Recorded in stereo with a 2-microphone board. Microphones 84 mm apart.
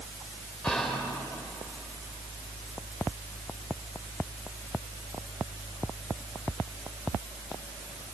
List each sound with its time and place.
0.6 s whispering: 10° left (ahead or behind), 6 m